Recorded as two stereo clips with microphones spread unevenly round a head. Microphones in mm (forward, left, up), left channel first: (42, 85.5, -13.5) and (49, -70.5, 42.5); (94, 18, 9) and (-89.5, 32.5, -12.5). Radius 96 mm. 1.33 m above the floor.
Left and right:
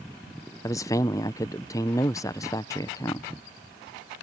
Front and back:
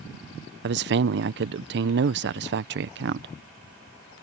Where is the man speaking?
155° left.